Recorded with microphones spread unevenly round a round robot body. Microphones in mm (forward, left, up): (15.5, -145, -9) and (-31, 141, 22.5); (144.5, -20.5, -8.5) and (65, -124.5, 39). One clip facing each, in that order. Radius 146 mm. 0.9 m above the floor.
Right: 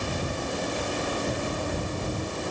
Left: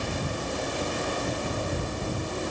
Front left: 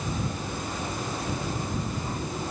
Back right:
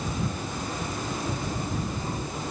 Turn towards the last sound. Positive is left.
No sound to turn to.